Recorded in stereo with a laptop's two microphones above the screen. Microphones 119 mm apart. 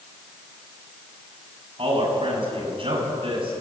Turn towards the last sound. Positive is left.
turn(degrees=-45)  # may be behind; listen again after turning